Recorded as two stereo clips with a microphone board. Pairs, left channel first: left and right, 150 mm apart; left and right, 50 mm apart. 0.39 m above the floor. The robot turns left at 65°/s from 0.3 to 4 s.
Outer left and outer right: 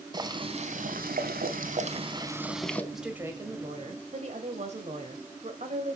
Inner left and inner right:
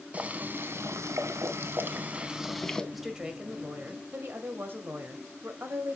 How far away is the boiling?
About 1.1 m.